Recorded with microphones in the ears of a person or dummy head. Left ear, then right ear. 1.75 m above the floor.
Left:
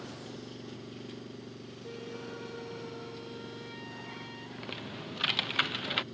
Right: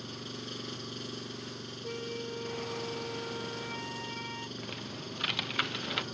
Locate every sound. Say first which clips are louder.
0.0 s an engine running: right 3 dB; 45° right (ahead or behind)
1.8 s a flute: right 4 dB; 30° right (ahead or behind)
4.6 s typing on a keyboard: even; 5° left (ahead or behind)